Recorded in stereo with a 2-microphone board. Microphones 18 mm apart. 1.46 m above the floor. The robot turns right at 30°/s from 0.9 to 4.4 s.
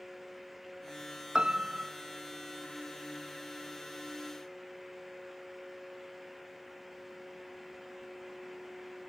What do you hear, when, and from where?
1.4 s a piano: 55° right (ahead or behind), 1.1 m; by 1.9 s 40° right (ahead or behind), 1.1 m